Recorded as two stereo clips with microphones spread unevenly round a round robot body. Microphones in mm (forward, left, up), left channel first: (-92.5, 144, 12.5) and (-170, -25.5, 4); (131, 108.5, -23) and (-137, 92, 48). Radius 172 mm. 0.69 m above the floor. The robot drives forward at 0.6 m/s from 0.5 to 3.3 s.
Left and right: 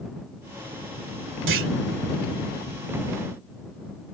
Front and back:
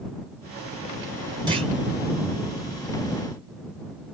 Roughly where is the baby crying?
I don't hear a baby crying.